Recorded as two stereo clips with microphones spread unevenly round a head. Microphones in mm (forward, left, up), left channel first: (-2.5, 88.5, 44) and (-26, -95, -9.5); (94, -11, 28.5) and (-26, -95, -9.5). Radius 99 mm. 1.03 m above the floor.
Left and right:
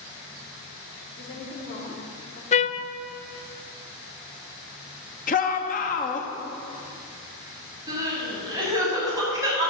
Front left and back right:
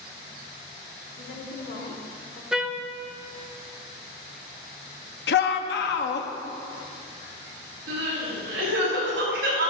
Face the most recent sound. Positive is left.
turn(degrees=-170)